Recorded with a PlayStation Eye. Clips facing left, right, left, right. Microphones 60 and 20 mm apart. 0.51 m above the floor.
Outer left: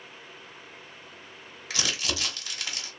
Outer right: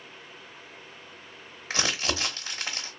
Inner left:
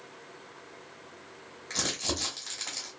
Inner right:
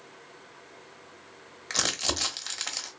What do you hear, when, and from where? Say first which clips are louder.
1.7 s crumpling: outer right 3 dB, inner right 3 dB; 35° right (ahead or behind), 0.8 m